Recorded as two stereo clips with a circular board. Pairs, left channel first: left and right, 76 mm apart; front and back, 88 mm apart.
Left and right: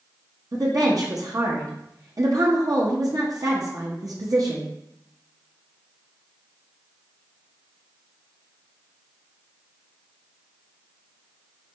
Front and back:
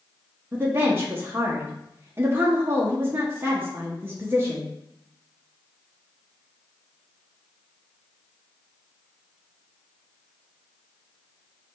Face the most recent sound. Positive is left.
turn(degrees=-120)